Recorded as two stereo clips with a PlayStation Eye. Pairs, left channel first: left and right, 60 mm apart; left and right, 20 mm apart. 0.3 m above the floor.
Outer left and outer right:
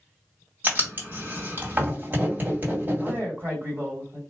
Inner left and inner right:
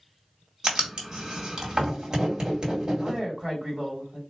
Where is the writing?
30° right (ahead or behind), 1.9 m.